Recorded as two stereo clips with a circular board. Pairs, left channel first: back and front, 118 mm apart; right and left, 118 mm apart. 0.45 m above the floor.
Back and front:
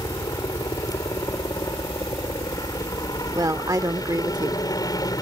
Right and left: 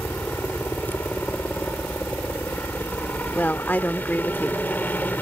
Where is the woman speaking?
30° right.